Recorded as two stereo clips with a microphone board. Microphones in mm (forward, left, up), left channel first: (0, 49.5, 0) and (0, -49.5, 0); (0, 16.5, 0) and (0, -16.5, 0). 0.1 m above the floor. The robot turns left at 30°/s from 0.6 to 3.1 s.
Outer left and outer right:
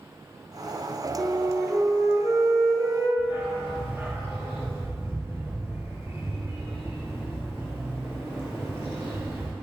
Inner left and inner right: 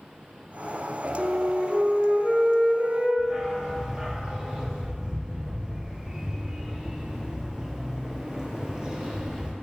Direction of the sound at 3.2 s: 25° right (ahead or behind).